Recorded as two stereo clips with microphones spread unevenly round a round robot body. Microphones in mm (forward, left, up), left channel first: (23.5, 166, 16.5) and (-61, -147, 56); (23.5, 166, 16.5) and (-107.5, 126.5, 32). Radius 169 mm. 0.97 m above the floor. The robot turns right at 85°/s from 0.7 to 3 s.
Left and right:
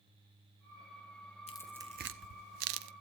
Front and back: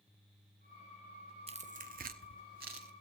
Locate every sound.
1.5 s tearing paper: 145° left, 0.8 m; by 2.9 s 90° right, 0.8 m